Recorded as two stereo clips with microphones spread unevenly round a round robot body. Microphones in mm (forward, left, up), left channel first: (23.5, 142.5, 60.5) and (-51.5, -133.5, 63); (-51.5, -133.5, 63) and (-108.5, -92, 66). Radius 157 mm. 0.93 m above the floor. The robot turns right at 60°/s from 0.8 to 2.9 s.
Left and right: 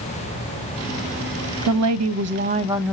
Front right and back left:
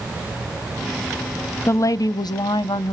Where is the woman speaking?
90° right, 0.8 m; by 2.9 s 15° right, 0.8 m.